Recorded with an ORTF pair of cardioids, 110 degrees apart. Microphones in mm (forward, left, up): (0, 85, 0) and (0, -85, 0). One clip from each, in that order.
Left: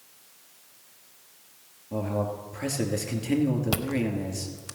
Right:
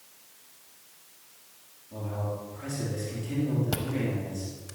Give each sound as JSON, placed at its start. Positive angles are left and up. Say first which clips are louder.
{"t": 1.9, "sound": "a man speaking", "louder": "left 6 dB", "azimuth_deg": 70, "distance_m": 3.0}
{"t": 3.7, "sound": "chewing", "louder": "left 3 dB", "azimuth_deg": 40, "distance_m": 0.8}